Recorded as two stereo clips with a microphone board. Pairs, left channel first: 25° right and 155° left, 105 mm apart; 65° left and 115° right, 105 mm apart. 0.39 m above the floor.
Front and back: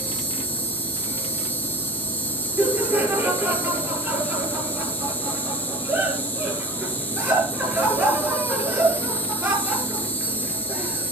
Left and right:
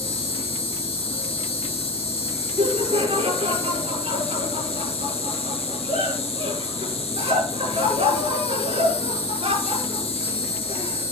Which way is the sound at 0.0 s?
50° left.